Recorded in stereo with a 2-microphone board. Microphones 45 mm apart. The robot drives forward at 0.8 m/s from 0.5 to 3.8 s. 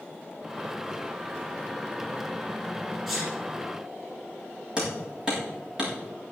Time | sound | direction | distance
3.1 | a sneeze | 5° right (ahead or behind) | 3.5 m
4.8 | hammering | 15° right (ahead or behind) | 6 m